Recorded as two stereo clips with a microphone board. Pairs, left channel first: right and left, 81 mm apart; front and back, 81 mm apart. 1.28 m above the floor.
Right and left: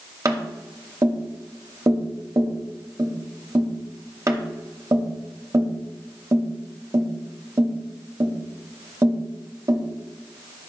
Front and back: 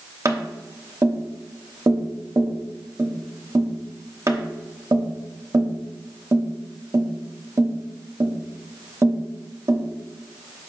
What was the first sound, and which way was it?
Tapping, 135° left.